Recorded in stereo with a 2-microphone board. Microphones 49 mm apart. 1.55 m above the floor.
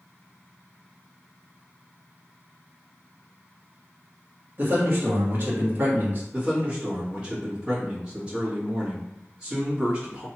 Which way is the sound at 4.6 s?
40° right (ahead or behind).